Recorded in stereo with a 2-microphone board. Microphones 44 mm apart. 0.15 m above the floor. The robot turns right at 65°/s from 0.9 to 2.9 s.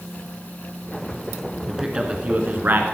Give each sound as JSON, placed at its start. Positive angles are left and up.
{"t": 1.7, "sound": "a man speaking", "azimuth_deg": -170, "distance_m": 1.4}